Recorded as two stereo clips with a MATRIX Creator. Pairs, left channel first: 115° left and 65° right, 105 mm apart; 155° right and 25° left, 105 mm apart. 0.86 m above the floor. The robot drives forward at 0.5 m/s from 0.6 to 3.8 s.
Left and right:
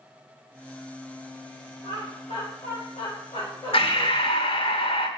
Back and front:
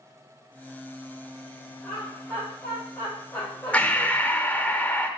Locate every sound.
1.8 s laughter: 110° left, 4.5 m; by 4.1 s 120° left, 5 m
3.7 s breathing: 125° left, 0.8 m; by 5.1 s 130° left, 0.8 m